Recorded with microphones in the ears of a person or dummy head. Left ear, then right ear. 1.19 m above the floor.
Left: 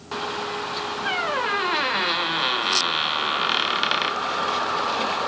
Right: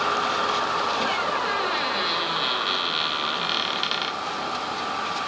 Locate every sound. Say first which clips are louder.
1.1 s a squeak: left 1 dB; 25° left (ahead or behind), 0.5 m